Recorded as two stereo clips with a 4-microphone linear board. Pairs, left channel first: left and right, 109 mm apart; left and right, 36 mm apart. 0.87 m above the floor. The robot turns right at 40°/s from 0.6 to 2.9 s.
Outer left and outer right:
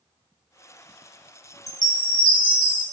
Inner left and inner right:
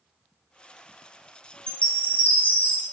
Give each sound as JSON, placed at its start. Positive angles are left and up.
{"t": 1.7, "sound": "a chime", "azimuth_deg": 55, "distance_m": 0.6}